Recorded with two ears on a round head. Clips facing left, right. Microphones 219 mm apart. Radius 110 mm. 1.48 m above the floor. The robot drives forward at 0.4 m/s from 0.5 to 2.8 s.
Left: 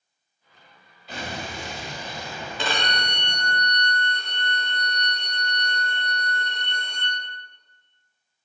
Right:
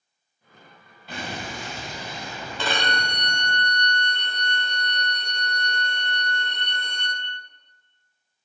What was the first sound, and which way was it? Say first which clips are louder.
An explosion: even; 50° right (ahead or behind).